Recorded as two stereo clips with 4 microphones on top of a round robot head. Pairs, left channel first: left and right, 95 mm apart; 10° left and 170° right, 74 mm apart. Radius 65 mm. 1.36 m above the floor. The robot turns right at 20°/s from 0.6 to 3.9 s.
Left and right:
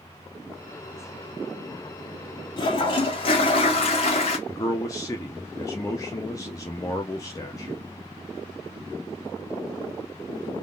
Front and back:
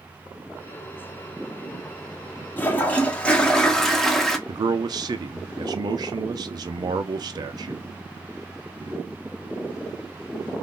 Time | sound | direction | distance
2.6 | a toilet flushing | 70° left | 1.1 m
4.5 | a man speaking | 155° left | 0.7 m